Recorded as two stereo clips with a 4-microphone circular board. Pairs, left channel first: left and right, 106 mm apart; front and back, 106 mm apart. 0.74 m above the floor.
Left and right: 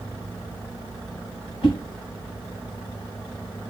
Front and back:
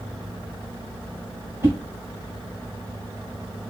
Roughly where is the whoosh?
Behind left.